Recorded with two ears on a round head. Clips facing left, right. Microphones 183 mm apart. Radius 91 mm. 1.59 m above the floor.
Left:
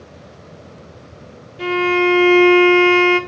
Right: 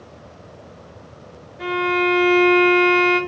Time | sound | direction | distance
1.6 | a violin | 40° left (ahead or behind) | 0.6 m